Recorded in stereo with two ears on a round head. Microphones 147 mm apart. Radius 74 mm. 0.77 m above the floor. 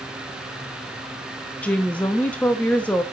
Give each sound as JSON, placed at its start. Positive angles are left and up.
{"t": 1.6, "sound": "a woman speaking", "side_deg": 10, "distance_m": 0.8}